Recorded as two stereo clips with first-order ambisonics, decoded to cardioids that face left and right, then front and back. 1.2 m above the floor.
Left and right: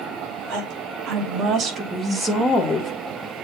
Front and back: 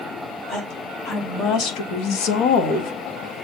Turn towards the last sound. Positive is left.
turn(degrees=20)